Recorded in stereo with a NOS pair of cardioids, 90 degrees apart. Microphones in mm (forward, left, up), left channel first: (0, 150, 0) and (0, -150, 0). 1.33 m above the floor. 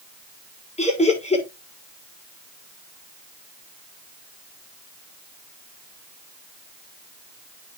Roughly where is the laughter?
Ahead.